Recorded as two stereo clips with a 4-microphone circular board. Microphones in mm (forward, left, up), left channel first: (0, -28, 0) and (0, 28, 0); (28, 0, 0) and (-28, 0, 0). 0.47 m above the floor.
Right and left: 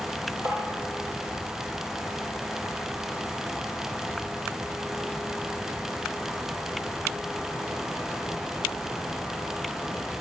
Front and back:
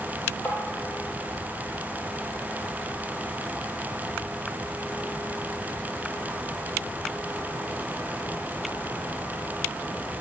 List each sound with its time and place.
0.5 s tapping: 55° left, 7.5 m